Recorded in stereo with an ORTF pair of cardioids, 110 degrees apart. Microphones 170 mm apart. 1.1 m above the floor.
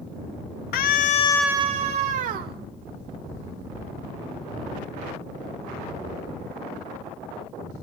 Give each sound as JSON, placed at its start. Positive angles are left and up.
{"t": 0.7, "sound": "a scream", "azimuth_deg": 65, "distance_m": 1.2}